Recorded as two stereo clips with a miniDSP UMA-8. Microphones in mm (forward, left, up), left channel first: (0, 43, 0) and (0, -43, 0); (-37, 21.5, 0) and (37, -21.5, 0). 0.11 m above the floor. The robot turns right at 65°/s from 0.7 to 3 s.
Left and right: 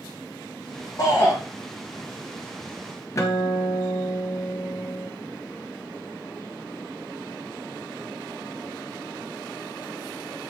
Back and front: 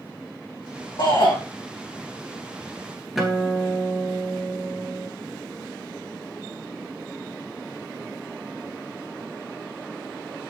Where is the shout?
130° left, 4.5 m; by 1.4 s 155° left, 4.5 m.